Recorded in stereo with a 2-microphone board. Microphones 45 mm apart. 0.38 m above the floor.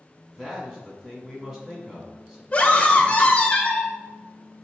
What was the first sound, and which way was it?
A man speaking, 15° right (ahead or behind).